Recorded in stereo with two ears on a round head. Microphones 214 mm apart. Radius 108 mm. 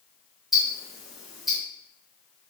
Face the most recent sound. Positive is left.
turn(degrees=0)  # may be behind; listen again after turning